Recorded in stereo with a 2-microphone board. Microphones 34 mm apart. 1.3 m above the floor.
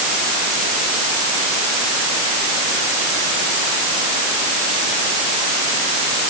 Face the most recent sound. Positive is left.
No sound to turn to.